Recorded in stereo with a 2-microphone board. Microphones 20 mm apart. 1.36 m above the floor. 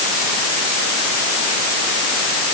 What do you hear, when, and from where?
Only background noise.